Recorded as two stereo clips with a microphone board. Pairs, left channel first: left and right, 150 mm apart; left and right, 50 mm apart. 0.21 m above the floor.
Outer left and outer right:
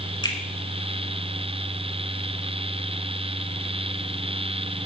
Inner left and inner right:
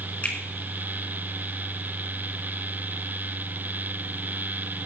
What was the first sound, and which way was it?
A finger snap, 30° left (ahead or behind).